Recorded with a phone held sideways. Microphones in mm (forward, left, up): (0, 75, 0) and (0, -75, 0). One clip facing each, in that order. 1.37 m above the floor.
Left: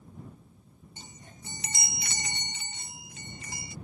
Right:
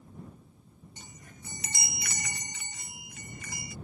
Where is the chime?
25° left (ahead or behind).